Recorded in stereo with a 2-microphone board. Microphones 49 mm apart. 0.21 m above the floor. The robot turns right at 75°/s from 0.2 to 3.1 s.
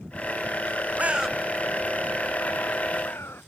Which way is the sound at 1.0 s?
30° right (ahead or behind).